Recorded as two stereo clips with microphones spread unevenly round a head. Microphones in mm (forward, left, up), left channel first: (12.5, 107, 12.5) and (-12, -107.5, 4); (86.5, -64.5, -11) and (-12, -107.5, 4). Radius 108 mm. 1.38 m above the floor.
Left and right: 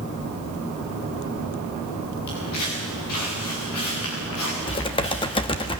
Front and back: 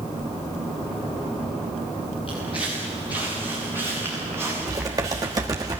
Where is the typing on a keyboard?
145° left, 1.2 m.